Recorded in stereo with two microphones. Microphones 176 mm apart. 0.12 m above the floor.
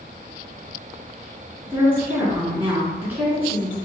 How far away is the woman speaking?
About 1.7 m.